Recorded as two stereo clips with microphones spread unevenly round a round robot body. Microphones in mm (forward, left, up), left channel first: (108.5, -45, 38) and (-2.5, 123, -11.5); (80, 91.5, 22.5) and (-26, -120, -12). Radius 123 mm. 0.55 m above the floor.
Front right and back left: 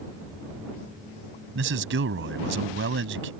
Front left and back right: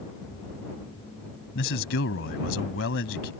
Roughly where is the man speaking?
Left.